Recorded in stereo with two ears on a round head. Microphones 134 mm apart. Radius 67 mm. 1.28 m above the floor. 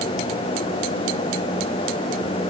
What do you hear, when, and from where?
Only background noise.